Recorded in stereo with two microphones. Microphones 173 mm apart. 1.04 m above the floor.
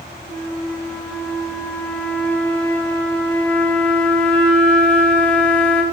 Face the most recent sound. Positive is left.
turn(degrees=5)  # may be behind; listen again after turning